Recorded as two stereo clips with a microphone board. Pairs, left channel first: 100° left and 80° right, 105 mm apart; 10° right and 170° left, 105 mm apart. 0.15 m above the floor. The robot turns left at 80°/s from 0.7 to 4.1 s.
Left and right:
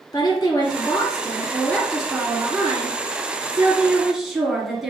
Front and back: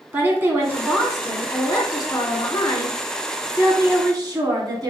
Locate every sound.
0.1 s a woman speaking: 110° left, 1.4 m; by 4.9 s 165° right, 1.4 m